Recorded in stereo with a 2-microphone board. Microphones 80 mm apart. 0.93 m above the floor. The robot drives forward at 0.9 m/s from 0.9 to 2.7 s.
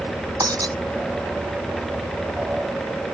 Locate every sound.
0.4 s breaking glass: 55° right (ahead or behind)